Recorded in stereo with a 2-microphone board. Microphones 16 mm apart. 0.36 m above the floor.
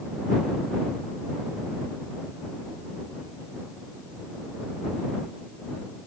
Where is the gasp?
No gasp in this recording.